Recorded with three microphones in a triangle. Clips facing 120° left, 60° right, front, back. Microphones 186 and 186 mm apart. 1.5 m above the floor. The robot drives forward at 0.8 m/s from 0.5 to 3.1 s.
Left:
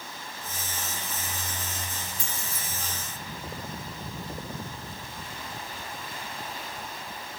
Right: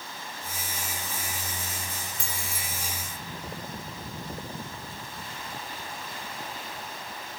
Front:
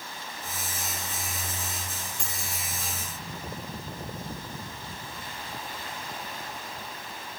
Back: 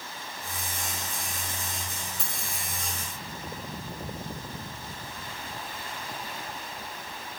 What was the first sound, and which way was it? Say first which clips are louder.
Keys jangling: even, even; 95° right.